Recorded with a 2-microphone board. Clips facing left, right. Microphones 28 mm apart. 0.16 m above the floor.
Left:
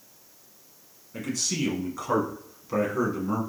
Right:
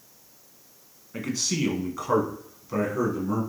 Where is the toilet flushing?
No toilet flushing in this recording.